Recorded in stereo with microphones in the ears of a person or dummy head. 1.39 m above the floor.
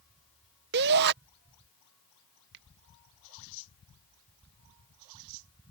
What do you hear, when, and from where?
0.7 s a shout: 55° right (ahead or behind)
2.5 s a finger snap: 60° right (ahead or behind)